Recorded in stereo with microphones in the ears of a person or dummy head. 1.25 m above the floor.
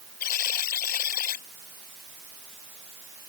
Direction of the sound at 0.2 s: 50° left (ahead or behind).